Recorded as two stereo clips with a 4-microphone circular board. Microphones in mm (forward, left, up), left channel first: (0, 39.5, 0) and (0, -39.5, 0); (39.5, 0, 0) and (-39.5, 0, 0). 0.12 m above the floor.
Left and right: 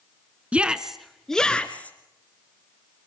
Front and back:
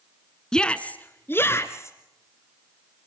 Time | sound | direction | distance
0.5 | a shout | 55° right | 1.3 m